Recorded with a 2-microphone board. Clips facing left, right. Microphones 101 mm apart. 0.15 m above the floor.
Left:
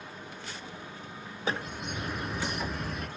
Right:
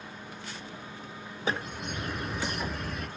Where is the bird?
5° left (ahead or behind), 0.6 m.